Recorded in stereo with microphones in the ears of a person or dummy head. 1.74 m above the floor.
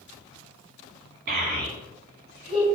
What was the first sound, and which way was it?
A child speaking, 55° right (ahead or behind).